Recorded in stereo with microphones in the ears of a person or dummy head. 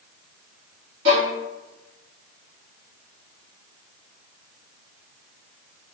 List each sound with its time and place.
1.1 s a violin: 65° right (ahead or behind), 1.6 m